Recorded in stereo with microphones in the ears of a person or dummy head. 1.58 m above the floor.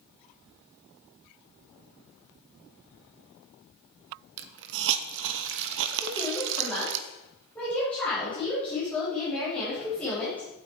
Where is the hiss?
65° right (ahead or behind), 0.7 m.